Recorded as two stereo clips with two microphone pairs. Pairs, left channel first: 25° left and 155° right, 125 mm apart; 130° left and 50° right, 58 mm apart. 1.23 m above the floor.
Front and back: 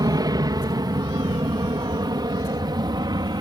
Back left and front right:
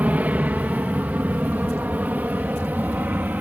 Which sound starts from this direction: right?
An aircraft, at 0.0 s.